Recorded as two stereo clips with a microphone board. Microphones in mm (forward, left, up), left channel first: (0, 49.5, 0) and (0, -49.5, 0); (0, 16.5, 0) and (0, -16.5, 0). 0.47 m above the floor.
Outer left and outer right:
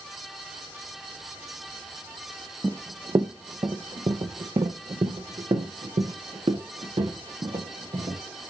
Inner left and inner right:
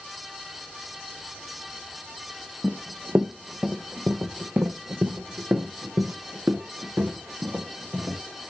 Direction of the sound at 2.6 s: 30° right (ahead or behind).